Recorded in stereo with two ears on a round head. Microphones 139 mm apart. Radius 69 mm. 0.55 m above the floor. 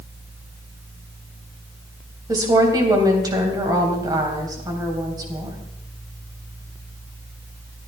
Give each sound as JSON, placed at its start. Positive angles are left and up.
{"t": 2.3, "sound": "a woman speaking", "side_deg": -25, "distance_m": 4.0}